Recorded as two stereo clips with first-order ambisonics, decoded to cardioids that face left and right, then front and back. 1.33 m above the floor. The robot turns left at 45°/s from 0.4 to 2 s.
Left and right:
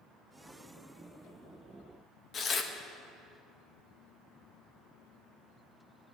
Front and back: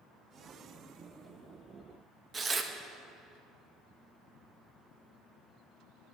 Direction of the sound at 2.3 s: 125° left.